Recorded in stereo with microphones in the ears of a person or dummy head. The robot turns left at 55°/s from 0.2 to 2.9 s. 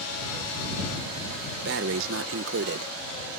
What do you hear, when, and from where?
1.6 s breathing: 60° right; by 2.9 s 130° right